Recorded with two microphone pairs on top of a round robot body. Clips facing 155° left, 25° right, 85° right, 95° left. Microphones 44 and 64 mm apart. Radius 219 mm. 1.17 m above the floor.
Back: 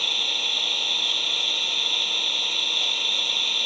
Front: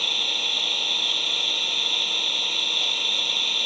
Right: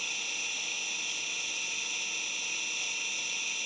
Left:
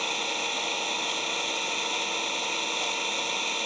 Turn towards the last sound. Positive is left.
turn(degrees=65)